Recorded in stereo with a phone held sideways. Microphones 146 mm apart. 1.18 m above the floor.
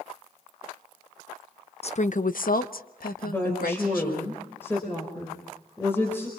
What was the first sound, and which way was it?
A woman speaking, 45° left (ahead or behind).